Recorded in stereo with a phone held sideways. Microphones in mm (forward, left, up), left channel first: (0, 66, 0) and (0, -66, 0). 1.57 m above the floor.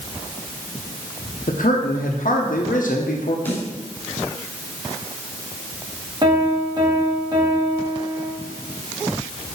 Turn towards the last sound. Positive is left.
turn(degrees=-30)  # may be behind; listen again after turning